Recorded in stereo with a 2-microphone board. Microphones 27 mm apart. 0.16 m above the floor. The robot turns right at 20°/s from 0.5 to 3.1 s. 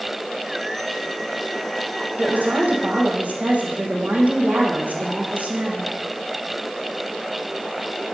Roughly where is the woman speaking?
Right.